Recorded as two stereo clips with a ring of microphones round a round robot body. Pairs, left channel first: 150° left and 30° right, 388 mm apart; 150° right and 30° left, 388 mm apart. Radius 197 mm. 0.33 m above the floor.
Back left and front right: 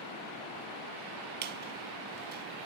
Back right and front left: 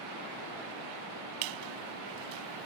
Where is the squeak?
35° left.